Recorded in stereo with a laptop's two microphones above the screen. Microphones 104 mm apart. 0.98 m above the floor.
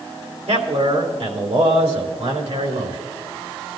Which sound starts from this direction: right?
A man speaking, at 0.5 s.